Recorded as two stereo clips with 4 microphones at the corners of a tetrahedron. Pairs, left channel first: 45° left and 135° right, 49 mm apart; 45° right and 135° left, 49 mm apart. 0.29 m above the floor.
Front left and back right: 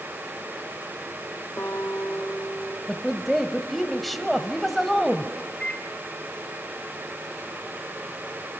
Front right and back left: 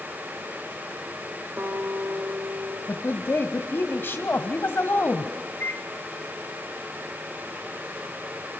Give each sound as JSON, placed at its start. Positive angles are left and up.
{"t": 1.6, "sound": "a guitar", "azimuth_deg": 90, "distance_m": 4.5}
{"t": 2.9, "sound": "a woman speaking", "azimuth_deg": -45, "distance_m": 1.3}
{"t": 5.6, "sound": "a microwave", "azimuth_deg": -20, "distance_m": 2.0}